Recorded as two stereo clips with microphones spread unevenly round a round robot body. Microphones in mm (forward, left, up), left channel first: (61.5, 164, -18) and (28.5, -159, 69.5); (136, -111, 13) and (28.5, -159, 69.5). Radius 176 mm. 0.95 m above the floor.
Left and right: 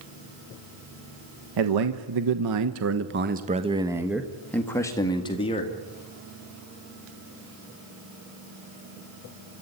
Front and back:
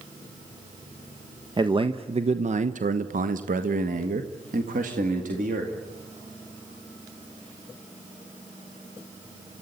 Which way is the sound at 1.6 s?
90° right.